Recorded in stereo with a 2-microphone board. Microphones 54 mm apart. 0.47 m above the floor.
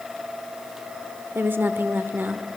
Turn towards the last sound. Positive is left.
turn(degrees=-40)  # may be behind; listen again after turning